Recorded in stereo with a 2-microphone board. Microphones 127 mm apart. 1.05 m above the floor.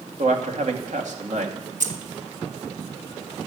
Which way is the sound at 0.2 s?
70° right (ahead or behind).